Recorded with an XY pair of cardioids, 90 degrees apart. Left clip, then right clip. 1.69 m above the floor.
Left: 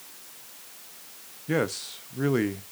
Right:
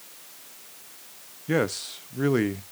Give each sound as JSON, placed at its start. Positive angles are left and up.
{"t": 1.5, "sound": "a man speaking", "azimuth_deg": -15, "distance_m": 0.9}